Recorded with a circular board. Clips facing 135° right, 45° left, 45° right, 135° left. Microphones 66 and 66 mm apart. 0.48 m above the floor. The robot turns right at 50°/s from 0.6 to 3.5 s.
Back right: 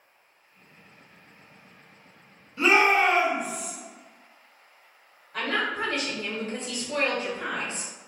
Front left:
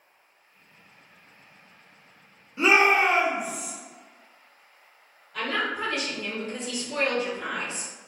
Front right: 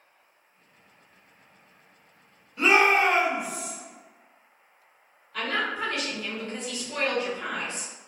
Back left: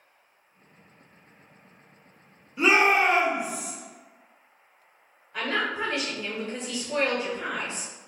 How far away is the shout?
About 0.9 m.